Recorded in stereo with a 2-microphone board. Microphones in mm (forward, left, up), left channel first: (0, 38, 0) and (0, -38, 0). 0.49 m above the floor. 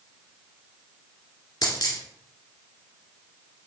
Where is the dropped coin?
60° left (ahead or behind), 1.7 m.